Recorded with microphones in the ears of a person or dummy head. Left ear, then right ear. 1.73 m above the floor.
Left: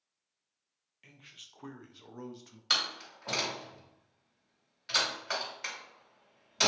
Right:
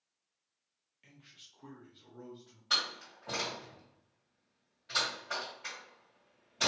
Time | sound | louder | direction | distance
1.0 | a man speaking | left 5 dB | 5° left (ahead or behind) | 0.7 m
2.7 | a door slam | left 2 dB | 55° left (ahead or behind) | 1.9 m